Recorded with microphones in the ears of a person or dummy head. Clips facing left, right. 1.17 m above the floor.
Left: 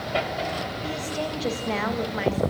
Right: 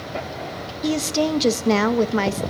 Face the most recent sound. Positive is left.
turn(degrees=-50)  # may be behind; listen again after turning